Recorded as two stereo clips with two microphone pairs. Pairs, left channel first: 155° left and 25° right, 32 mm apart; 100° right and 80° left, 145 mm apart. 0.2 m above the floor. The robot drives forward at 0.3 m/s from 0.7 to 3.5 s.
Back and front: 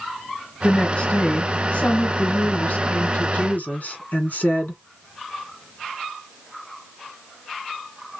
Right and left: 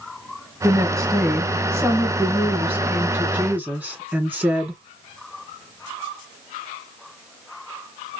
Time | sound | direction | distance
0.6 | a woman speaking | 130° left | 1.2 m